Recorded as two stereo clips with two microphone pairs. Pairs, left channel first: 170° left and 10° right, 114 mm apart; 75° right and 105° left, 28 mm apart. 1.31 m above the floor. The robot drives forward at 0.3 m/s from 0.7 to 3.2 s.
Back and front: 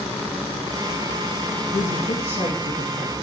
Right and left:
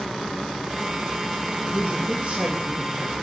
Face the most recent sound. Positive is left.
turn(degrees=165)